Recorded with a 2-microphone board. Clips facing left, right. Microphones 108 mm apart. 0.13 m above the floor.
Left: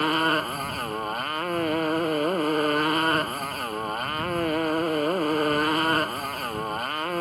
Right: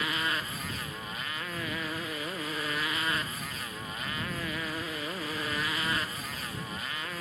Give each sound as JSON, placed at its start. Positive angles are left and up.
{"t": 0.0, "sound": "a motorcycle", "side_deg": 55}